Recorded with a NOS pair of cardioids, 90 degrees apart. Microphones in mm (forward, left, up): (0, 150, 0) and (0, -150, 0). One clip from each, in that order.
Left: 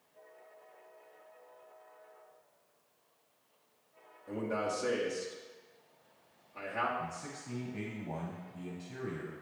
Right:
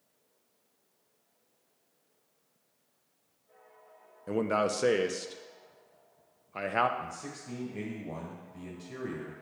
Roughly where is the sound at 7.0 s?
Ahead.